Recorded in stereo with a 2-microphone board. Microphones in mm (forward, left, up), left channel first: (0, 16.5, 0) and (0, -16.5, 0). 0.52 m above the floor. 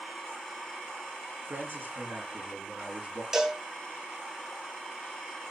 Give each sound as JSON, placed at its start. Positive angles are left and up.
{"t": 1.5, "sound": "a man speaking", "side_deg": -80, "distance_m": 7.0}
{"t": 3.3, "sound": "a cowbell", "side_deg": -15, "distance_m": 2.5}